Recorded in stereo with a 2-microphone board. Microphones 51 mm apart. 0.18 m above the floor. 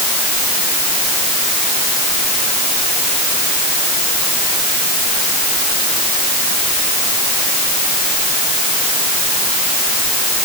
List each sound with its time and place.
Only background noise.